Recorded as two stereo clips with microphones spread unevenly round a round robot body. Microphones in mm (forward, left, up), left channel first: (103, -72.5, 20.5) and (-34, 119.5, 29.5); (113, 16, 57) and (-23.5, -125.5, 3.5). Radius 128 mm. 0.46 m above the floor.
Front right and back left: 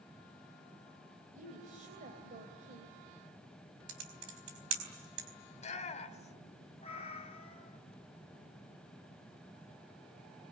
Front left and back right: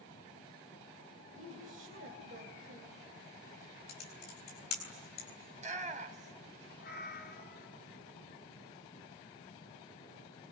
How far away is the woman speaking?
About 3 m.